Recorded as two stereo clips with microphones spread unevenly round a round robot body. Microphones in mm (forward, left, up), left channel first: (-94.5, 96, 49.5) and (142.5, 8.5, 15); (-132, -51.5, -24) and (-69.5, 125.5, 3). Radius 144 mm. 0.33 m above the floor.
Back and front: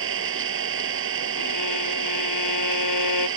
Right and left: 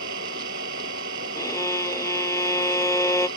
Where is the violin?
175° left.